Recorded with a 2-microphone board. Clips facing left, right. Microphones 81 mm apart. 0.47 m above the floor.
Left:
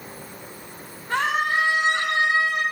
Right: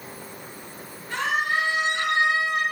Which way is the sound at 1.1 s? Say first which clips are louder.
Left 3 dB; 55° left (ahead or behind).